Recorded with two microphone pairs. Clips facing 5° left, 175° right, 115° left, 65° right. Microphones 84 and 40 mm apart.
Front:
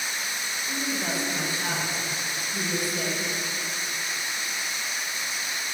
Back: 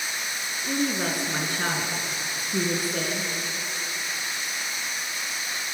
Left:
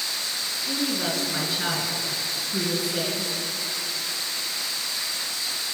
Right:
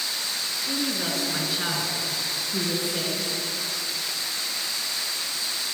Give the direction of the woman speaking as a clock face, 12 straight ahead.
5 o'clock.